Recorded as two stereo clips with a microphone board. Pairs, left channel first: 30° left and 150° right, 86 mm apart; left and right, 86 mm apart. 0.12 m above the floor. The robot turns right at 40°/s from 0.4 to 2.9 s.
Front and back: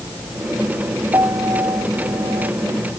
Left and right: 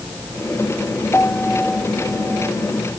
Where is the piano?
155° left; by 2.5 s 150° right.